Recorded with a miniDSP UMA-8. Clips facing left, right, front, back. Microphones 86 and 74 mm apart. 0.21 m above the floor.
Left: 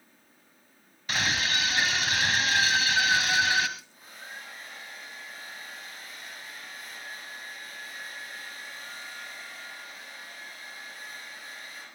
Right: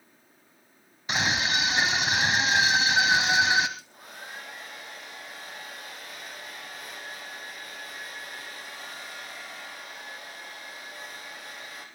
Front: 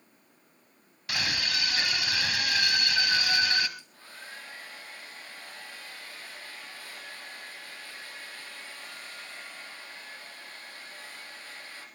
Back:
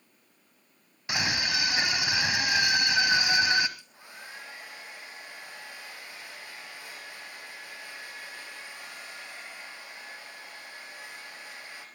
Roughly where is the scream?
Behind right.